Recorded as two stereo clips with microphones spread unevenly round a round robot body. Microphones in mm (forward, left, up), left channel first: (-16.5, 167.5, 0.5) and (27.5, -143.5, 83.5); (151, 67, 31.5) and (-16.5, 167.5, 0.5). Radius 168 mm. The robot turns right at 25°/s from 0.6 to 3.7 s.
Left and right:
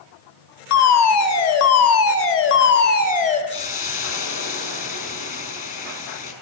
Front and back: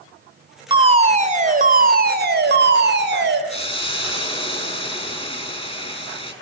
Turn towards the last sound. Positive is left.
turn(degrees=35)